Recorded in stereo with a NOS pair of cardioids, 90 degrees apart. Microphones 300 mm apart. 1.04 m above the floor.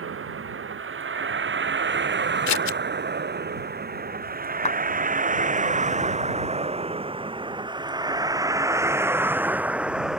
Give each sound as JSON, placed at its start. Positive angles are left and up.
{"t": 0.0, "sound": "a vehicle", "azimuth_deg": -45}
{"t": 2.5, "sound": "scissors", "azimuth_deg": 65}
{"t": 4.7, "sound": "a clap", "azimuth_deg": 25}